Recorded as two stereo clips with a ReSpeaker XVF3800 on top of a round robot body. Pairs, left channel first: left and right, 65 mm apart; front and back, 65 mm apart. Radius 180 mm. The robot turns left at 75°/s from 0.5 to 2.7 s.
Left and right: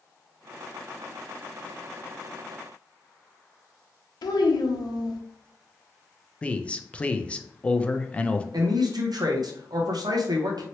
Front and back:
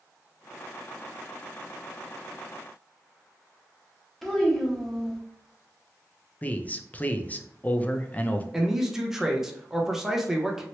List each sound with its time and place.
4.2 s a child speaking: 85° left, 0.5 m
6.4 s a man speaking: 35° left, 0.6 m
8.5 s a man speaking: 95° right, 0.8 m